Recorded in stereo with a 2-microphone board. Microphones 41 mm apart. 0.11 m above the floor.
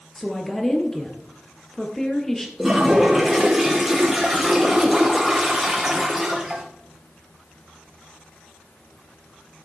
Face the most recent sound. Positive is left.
turn(degrees=0)  # may be behind; listen again after turning